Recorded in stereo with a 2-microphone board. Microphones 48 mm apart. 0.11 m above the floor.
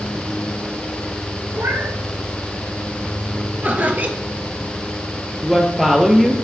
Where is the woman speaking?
10° right (ahead or behind), 2.5 m.